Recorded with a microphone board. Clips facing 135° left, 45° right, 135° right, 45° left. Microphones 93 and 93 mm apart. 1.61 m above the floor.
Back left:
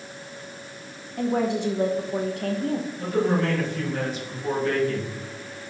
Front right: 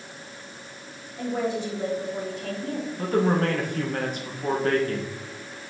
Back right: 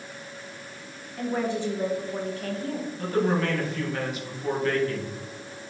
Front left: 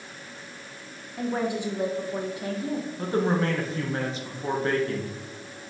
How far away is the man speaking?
About 1.4 m.